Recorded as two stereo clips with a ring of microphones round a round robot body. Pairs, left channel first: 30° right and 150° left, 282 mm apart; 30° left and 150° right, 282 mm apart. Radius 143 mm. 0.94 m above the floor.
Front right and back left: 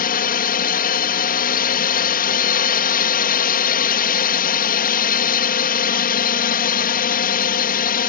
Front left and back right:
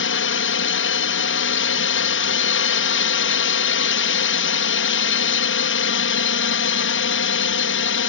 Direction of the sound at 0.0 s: 15° left.